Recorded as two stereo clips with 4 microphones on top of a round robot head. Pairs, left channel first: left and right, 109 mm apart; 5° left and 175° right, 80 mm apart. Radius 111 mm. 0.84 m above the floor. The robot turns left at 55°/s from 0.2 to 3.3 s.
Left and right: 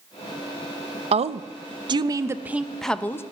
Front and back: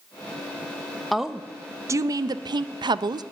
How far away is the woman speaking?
About 0.5 m.